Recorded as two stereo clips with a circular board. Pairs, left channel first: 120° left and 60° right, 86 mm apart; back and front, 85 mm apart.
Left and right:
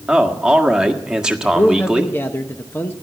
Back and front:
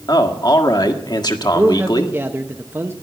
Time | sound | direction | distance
0.1 | a man speaking | 140° right | 1.6 m
1.4 | a man speaking | 60° left | 0.9 m